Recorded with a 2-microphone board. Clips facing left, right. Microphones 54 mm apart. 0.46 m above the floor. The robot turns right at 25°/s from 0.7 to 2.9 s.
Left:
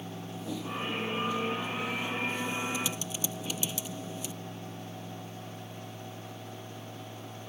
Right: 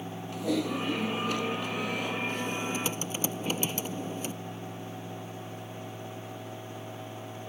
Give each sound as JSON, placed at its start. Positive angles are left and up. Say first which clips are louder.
{"t": 0.3, "sound": "typing on a keyboard", "louder": "right 8 dB", "azimuth_deg": -100}